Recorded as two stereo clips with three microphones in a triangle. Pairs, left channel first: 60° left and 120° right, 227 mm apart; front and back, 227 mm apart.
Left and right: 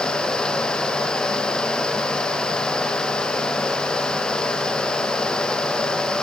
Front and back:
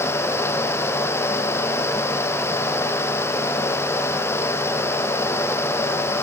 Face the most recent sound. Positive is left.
No sound to turn to.